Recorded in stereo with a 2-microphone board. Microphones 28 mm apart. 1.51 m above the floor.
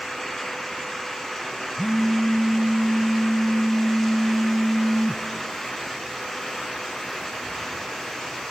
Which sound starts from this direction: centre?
A phone buzzing, at 1.8 s.